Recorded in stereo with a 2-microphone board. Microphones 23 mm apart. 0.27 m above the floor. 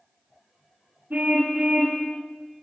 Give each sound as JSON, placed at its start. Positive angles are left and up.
{"t": 1.1, "sound": "a car horn", "side_deg": -80, "distance_m": 9.0}